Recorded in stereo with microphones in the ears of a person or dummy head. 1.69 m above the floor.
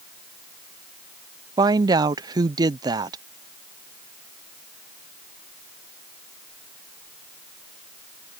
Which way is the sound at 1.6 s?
30° right (ahead or behind).